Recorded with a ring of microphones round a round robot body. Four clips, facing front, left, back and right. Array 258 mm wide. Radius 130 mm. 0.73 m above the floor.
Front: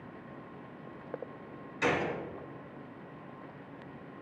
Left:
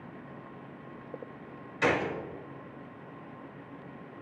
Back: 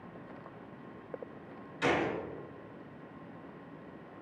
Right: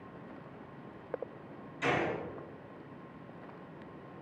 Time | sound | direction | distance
1.8 | a gunshot | 80° left | 2 m